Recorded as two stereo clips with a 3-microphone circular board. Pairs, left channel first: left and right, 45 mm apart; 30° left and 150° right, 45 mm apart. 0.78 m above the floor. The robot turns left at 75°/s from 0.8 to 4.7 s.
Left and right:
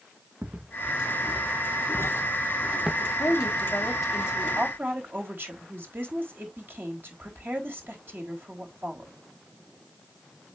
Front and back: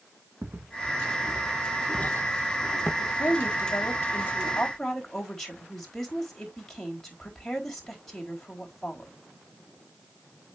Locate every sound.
0.4 s footsteps: 145° right, 2.5 m; by 2.9 s 15° right, 1.7 m
3.0 s a woman speaking: 75° left, 3.5 m; by 9.1 s 50° right, 3.5 m